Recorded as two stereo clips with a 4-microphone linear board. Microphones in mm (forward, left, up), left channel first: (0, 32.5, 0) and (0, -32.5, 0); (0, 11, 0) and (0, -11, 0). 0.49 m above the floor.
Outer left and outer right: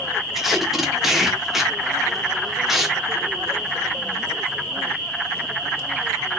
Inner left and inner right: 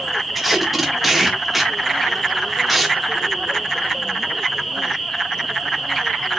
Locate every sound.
0.3 s tape being pulled: 5° right (ahead or behind), 1.1 m